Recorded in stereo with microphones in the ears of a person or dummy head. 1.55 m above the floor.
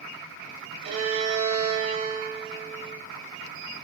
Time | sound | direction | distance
0.8 | a violin | 30° right (ahead or behind) | 1.2 m